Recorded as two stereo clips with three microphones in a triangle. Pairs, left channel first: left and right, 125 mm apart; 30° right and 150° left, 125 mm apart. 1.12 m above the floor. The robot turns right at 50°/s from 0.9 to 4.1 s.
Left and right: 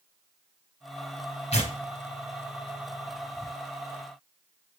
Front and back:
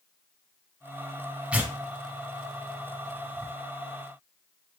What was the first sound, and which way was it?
Tearing paper, 70° left.